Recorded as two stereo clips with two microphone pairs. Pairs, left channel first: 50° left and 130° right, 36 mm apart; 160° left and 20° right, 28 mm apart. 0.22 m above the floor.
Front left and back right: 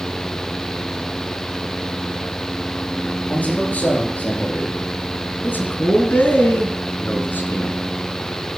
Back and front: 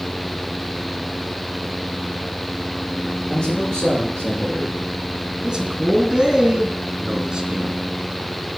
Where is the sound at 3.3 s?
95° left, 5 m.